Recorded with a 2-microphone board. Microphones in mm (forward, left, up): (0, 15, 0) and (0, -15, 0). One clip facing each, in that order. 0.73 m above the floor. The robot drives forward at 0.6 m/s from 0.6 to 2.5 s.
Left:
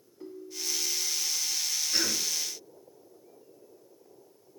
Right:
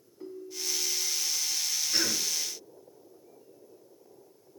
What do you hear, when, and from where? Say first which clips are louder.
0.2 s a ringtone: right 1 dB; 10° left (ahead or behind), 2.5 m; by 1.2 s 15° left (ahead or behind), 2 m
1.9 s a cough: even; 5° left (ahead or behind), 8 m